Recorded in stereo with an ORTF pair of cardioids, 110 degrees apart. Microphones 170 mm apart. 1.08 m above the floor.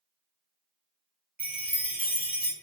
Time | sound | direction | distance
1.4 | a chime | 10° right | 0.6 m